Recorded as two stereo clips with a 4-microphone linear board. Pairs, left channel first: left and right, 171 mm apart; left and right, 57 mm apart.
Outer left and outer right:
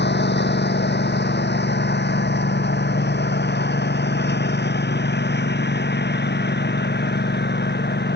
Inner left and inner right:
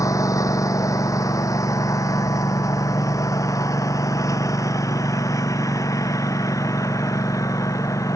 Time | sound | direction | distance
0.0 | a lawn mower | 85° left | ?